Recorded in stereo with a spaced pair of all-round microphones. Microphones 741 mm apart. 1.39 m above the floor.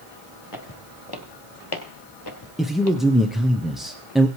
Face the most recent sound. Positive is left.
turn(degrees=0)  # may be behind; listen again after turning